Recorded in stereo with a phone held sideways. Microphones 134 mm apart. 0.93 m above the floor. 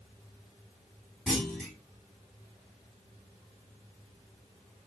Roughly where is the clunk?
Centre.